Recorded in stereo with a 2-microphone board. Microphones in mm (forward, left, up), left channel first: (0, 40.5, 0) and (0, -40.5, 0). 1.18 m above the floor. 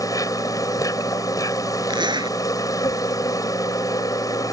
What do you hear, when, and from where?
0.0 s an insect: 45° left (ahead or behind)
1.9 s a zipper: 65° right (ahead or behind)